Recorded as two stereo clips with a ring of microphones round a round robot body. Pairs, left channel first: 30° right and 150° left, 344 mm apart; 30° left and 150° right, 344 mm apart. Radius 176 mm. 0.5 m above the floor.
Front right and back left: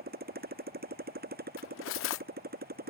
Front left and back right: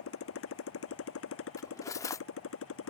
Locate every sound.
0.0 s a motorcycle: 85° left
1.6 s cutlery clinking: 45° right